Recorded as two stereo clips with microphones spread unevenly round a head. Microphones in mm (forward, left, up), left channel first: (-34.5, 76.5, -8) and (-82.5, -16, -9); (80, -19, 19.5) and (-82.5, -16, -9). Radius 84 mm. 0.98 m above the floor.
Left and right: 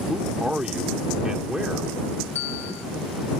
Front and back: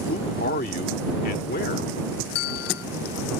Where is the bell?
10° right.